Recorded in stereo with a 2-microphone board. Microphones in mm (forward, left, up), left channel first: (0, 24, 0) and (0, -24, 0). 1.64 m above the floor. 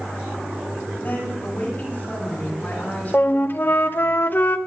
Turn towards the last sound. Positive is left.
turn(degrees=45)  # may be behind; listen again after turning